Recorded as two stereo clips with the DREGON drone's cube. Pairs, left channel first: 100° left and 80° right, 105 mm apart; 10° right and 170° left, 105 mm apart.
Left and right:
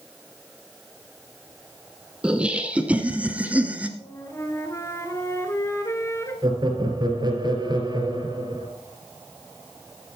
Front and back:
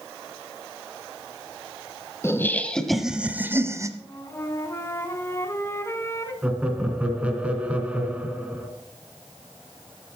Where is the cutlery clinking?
I don't hear cutlery clinking.